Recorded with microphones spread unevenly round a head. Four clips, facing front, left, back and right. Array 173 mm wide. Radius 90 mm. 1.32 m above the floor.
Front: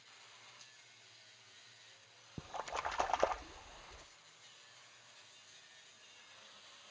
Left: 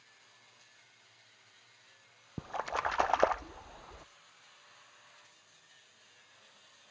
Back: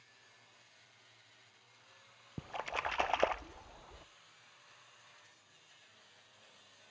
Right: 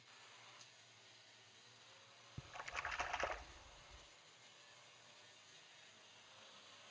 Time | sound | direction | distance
2.4 | a splash | 100° left | 0.5 m